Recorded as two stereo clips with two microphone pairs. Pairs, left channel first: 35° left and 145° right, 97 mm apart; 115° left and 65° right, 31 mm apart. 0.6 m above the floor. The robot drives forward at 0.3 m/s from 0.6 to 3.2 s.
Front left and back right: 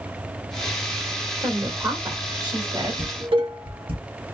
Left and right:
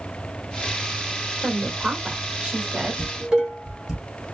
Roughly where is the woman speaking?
Right.